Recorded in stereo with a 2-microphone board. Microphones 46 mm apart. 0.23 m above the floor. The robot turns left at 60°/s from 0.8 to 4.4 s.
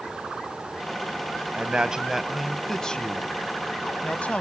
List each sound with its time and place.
1.5 s a man speaking: 125° right, 1.1 m; by 4.4 s 60° left, 1.1 m